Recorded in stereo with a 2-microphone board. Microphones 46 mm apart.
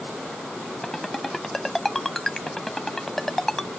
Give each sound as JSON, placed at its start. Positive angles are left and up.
{"t": 0.8, "sound": "a ringtone", "side_deg": 5}